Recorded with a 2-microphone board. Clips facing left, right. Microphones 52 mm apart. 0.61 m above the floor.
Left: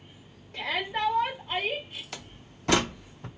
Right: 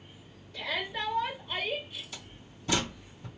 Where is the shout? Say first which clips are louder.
Left 4 dB; 50° left (ahead or behind), 2.0 m.